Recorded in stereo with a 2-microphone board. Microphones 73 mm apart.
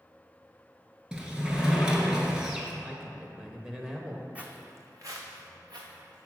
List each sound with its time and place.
1.1 s a sliding door: 15° right (ahead or behind), 1.1 m
2.8 s a man speaking: 10° right (ahead or behind), 0.9 m
4.3 s footsteps: 20° right (ahead or behind), 0.9 m; by 6.3 s 80° right, 2 m